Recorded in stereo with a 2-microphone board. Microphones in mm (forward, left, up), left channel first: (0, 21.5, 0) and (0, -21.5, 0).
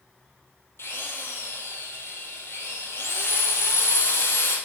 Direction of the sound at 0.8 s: 70° left (ahead or behind).